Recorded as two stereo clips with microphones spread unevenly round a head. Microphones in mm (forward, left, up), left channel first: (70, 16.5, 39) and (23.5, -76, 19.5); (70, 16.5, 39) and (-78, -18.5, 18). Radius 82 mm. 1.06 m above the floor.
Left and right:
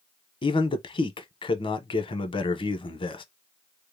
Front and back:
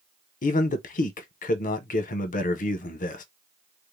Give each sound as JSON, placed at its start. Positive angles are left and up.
{"t": 0.4, "sound": "a man speaking", "azimuth_deg": 35, "distance_m": 0.8}